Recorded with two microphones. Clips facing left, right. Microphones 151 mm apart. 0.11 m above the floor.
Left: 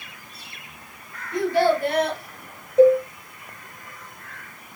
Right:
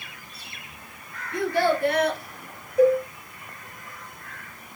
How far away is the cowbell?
About 0.5 m.